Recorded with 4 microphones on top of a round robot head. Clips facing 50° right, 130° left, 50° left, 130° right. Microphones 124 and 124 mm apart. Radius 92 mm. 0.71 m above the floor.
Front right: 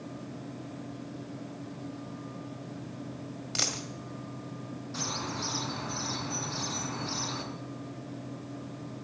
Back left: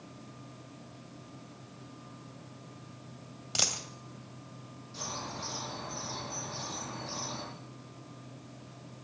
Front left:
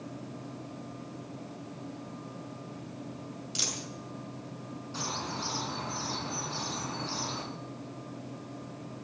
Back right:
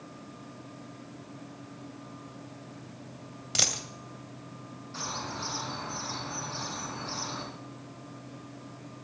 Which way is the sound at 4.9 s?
20° right.